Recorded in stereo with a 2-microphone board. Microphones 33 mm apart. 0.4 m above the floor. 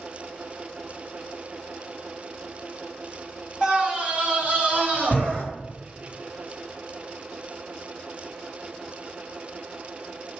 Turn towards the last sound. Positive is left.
turn(degrees=-55)  # may be behind; listen again after turning